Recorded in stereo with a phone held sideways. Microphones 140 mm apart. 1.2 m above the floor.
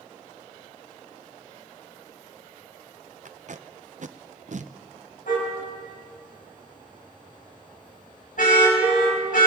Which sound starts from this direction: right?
Tape being pulled, at 3.2 s.